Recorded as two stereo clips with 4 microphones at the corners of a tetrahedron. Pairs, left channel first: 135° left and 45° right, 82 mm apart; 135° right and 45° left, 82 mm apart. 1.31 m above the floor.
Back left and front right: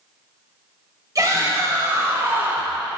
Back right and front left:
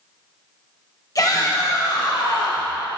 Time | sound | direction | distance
1.1 | a shout | 90° right | 3.5 m